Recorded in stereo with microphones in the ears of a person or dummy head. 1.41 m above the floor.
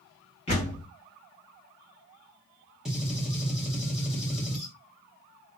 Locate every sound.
0.5 s a door slam: 35° left (ahead or behind), 1.3 m
2.9 s a gunshot: 5° right (ahead or behind), 1.2 m